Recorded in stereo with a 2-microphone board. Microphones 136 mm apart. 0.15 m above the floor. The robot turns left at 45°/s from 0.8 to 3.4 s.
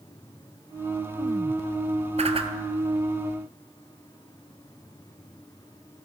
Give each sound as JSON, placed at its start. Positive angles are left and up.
{"t": 2.2, "sound": "a whoosh", "side_deg": -55, "distance_m": 0.8}